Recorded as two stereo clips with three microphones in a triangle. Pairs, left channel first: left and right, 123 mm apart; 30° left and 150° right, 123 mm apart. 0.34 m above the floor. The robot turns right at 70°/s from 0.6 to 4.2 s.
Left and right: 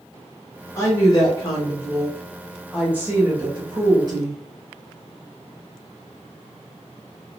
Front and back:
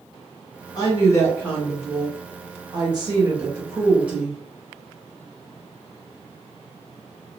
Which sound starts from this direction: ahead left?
A woman speaking, at 0.8 s.